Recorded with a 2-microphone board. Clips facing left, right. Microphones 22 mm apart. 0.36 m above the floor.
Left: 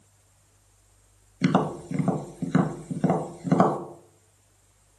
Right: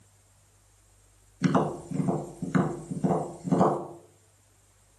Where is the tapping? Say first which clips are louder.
Left 2 dB; 55° left (ahead or behind), 1.0 m.